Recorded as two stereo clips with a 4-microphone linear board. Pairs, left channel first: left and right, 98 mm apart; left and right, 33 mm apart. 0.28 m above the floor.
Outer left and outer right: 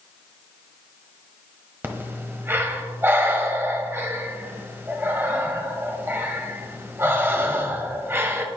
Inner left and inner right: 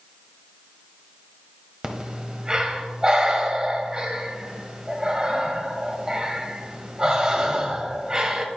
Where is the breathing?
25° right (ahead or behind), 1.1 m.